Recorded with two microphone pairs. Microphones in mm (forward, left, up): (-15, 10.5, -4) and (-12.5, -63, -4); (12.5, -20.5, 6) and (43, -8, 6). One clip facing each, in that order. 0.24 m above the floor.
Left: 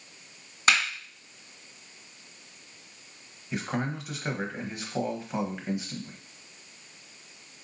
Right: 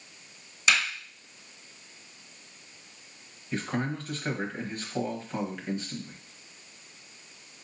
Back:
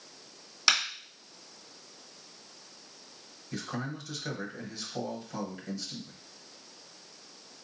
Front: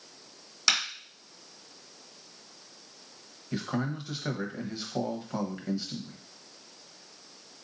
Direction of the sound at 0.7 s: 120° left.